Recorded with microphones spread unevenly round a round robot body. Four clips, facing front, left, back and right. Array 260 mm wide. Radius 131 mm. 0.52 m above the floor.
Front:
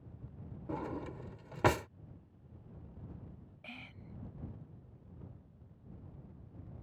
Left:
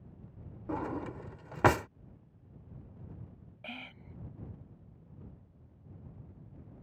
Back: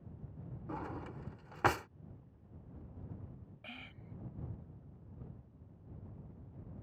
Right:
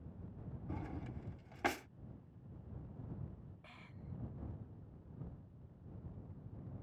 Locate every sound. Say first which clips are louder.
0.7 s a drawer: left 12 dB, front 4 dB; 65° left
3.6 s whispering: left 10 dB, front 1 dB; 85° left